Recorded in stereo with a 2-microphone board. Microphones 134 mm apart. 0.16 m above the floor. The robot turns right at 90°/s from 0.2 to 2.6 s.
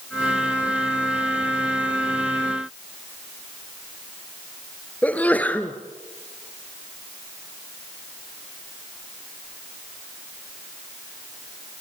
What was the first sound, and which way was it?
A sneeze, 10° left (ahead or behind).